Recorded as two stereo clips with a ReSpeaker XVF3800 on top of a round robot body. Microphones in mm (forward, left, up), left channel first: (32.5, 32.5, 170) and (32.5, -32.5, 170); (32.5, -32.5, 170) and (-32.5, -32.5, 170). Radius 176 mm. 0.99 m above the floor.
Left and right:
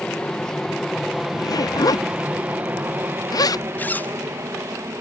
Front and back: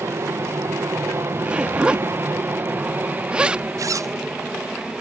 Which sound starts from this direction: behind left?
A zipper, at 3.8 s.